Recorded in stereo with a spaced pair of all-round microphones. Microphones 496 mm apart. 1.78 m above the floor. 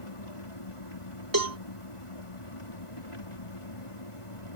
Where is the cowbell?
40° right (ahead or behind).